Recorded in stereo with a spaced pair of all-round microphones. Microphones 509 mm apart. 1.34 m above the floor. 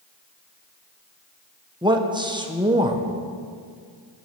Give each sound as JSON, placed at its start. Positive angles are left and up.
{"t": 1.8, "sound": "a man speaking", "side_deg": -10, "distance_m": 0.9}